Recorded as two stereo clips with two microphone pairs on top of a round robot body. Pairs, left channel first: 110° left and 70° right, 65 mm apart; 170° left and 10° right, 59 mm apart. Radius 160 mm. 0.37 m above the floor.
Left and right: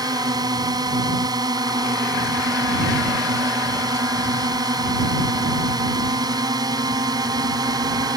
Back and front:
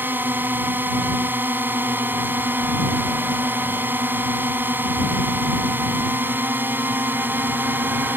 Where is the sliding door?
I don't hear a sliding door.